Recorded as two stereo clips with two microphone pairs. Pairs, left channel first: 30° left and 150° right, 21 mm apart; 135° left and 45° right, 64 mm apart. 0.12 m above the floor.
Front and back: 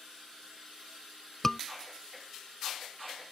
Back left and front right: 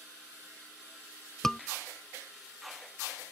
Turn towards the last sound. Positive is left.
turn(degrees=65)